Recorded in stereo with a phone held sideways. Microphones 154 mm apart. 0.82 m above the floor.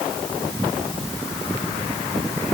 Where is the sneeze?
No sneeze in this recording.